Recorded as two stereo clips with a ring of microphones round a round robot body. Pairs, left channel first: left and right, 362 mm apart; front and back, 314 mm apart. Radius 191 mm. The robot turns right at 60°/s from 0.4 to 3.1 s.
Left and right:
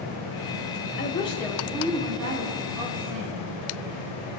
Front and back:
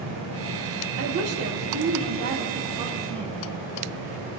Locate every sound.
1.0 s a woman speaking: 150° left, 2.5 m; by 3.4 s 85° right, 2.5 m